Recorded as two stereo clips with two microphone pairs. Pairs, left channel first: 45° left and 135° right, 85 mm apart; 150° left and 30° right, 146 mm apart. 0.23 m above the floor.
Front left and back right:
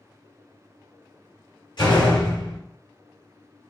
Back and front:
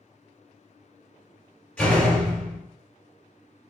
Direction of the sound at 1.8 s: 70° left.